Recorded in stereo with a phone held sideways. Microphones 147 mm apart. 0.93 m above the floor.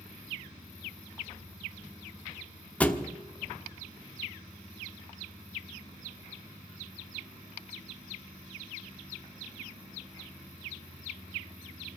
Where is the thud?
10° left (ahead or behind), 1.0 m.